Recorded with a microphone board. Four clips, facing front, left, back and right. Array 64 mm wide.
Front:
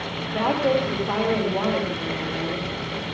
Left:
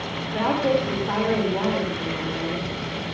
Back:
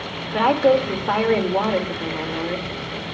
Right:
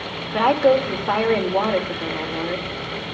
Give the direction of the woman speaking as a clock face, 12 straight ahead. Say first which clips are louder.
Right 6 dB, back 5 dB; 5 o'clock.